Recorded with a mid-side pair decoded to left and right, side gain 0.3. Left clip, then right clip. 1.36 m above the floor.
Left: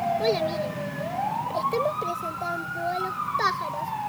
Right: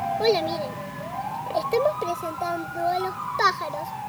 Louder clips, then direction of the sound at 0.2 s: Right 2 dB; 40° right.